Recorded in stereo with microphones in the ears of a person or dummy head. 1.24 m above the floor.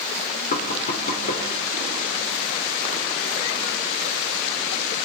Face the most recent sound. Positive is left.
turn(degrees=45)  # may be behind; listen again after turning